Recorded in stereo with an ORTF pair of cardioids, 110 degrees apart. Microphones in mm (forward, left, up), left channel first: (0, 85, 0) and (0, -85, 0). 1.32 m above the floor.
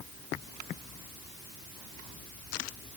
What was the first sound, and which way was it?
Only background noise.